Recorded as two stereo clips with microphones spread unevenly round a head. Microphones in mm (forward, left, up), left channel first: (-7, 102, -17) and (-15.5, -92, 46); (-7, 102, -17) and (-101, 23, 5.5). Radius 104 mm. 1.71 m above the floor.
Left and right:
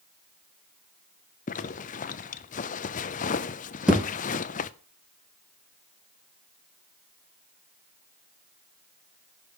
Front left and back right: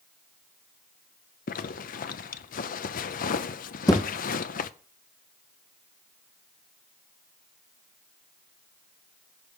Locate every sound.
1.5 s a zipper: 30° left, 0.5 m
3.9 s a thud: 30° right, 2 m